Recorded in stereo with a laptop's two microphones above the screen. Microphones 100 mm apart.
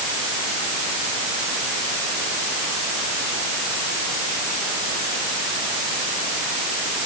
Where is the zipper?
No zipper in this recording.